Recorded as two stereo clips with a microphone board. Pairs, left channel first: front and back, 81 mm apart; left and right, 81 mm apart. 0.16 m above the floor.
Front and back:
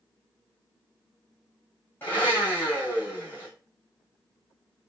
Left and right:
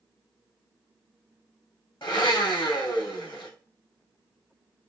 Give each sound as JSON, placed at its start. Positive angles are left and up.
{"t": 2.0, "sound": "a blender", "azimuth_deg": 70, "distance_m": 3.5}